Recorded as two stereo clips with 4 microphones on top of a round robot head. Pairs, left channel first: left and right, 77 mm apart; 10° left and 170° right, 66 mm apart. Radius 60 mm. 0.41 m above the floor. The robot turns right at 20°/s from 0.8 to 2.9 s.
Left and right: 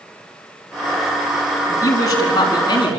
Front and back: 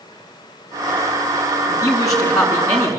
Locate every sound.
1.7 s a woman speaking: 40° left, 5.5 m; by 3.0 s 65° left, 5.5 m